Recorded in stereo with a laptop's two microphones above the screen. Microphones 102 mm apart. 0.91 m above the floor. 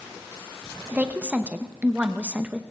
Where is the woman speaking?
15° right (ahead or behind), 0.7 m.